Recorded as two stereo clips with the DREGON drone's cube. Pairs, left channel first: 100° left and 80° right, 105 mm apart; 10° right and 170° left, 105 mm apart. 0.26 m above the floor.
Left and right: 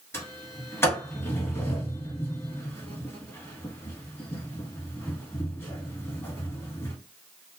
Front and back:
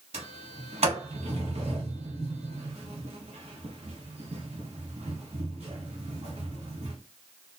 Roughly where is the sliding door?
Behind.